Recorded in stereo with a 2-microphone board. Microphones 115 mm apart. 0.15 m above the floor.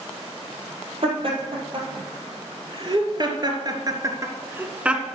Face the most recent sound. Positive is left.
turn(degrees=0)  # may be behind; listen again after turning